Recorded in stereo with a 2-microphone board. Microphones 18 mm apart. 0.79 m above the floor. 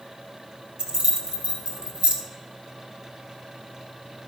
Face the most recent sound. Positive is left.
turn(degrees=-65)  # may be behind; listen again after turning